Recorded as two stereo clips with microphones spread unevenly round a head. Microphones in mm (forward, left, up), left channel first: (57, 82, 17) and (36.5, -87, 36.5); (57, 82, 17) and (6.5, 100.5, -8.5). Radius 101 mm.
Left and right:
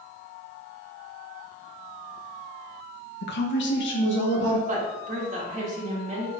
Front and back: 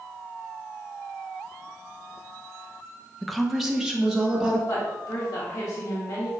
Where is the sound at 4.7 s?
50° right, 2.5 m.